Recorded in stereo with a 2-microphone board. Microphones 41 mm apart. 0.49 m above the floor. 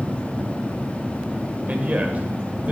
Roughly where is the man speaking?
Right.